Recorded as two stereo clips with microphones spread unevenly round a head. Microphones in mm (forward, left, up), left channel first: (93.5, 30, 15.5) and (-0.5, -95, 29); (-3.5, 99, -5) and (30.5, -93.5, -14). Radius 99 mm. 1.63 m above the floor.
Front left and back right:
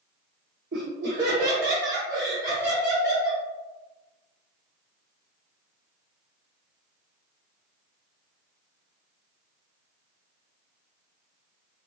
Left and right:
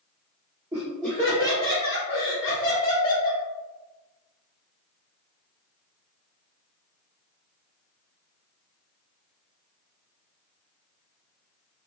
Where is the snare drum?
No snare drum in this recording.